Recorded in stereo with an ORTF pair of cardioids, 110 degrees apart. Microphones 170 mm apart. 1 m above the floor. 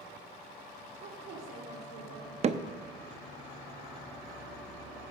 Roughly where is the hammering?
Ahead right.